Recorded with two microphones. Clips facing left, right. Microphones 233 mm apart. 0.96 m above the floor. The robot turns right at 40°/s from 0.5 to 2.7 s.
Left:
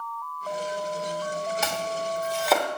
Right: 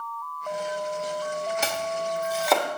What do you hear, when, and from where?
1.6 s chopping: 30° right (ahead or behind), 1.1 m; by 2.7 s 5° left (ahead or behind), 1.1 m